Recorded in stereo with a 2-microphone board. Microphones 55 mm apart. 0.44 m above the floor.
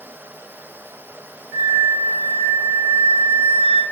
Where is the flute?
5° right (ahead or behind), 1.9 m.